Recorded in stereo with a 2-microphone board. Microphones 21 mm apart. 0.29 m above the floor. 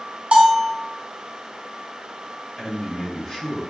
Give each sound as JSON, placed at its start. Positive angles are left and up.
{"t": 0.3, "sound": "a bell", "side_deg": -70, "distance_m": 0.9}
{"t": 2.6, "sound": "a man speaking", "side_deg": 30, "distance_m": 1.8}